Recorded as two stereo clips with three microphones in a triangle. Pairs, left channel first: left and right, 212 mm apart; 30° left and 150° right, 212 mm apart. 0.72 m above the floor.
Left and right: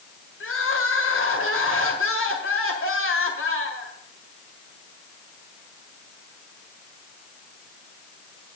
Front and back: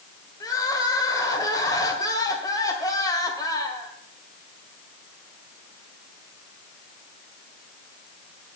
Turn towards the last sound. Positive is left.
turn(degrees=100)